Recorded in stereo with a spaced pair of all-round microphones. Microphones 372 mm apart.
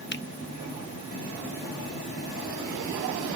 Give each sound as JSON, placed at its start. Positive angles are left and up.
{"t": 0.1, "sound": "a finger snap", "side_deg": 30, "distance_m": 0.5}